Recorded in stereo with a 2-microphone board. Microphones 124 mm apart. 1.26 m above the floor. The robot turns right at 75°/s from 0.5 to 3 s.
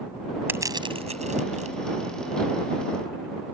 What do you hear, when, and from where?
0.5 s crushing: 15° right (ahead or behind); by 1.8 s 65° right (ahead or behind)